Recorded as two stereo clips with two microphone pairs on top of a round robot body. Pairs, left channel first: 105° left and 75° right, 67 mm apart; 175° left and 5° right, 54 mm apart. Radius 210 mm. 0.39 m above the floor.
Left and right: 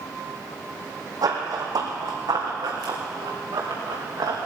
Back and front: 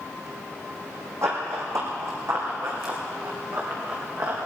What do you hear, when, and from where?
1.2 s running footsteps: 40° right, 2 m; by 4.4 s 45° right, 4.5 m